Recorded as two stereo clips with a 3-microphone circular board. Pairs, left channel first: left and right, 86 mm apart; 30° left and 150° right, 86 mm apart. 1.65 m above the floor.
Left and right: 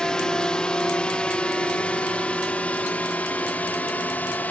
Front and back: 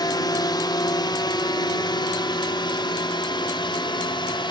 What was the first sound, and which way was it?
A drone, 10° left.